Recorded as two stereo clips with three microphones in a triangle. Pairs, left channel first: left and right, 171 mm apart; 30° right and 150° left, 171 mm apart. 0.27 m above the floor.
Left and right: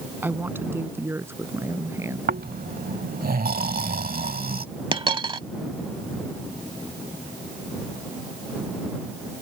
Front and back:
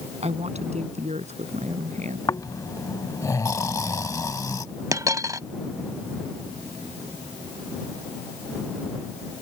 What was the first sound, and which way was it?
A woman speaking, 165° right.